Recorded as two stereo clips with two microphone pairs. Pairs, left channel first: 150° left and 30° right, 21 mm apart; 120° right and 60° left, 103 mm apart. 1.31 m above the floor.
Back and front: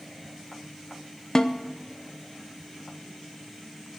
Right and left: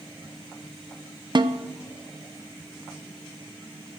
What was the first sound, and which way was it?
A snare drum, 95° left.